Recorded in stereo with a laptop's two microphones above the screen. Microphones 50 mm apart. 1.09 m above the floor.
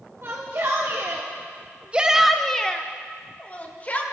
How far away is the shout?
About 1.8 m.